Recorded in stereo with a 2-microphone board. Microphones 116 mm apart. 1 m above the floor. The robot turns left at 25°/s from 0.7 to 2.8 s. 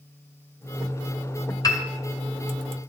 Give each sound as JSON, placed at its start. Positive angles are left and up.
{"t": 1.6, "sound": "a piano", "side_deg": 35, "distance_m": 1.6}